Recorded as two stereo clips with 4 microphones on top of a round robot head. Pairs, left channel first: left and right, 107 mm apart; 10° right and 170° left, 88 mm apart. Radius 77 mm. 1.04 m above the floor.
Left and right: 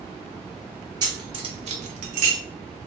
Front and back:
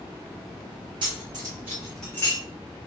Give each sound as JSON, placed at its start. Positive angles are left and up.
{"t": 1.0, "sound": "keys jangling", "azimuth_deg": -140, "distance_m": 1.0}